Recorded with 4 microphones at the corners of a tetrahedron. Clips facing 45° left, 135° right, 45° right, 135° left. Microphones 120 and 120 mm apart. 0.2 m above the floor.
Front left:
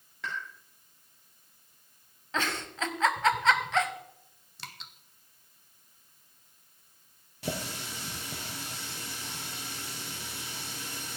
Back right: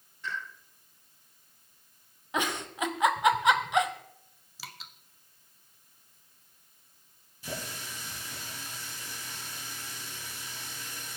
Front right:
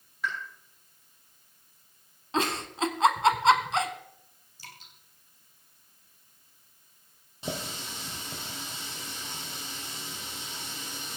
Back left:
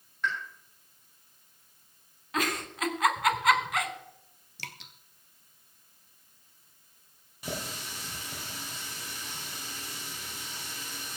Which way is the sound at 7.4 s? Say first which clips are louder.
Front left 4 dB, front right 2 dB; 20° left.